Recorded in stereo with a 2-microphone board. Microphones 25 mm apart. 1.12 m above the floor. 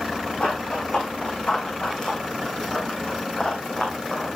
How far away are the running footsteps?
About 3.5 m.